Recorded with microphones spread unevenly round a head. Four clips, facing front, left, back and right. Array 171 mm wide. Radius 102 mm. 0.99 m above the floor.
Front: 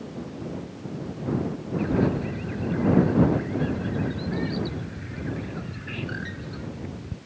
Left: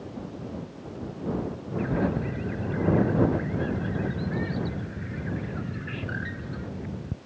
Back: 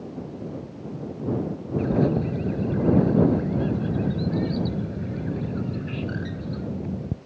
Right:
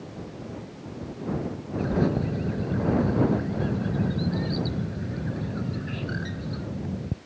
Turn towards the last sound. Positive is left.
turn(degrees=-165)